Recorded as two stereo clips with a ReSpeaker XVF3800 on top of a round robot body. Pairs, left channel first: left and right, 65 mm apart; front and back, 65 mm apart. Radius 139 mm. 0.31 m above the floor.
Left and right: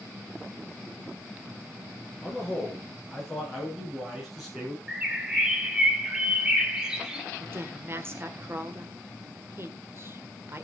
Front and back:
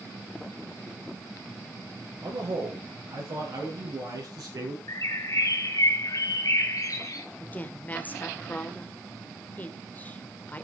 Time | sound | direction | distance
2.2 | a man speaking | 175° left | 7.5 m
4.9 | a bird | 10° right | 2 m
7.4 | a woman speaking | 55° right | 1.8 m